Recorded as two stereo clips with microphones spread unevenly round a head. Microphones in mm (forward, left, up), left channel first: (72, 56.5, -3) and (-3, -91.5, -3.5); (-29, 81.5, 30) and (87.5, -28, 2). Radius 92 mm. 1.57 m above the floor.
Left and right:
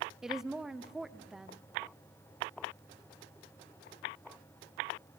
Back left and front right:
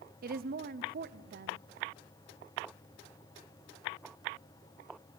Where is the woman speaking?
30° right, 0.8 m.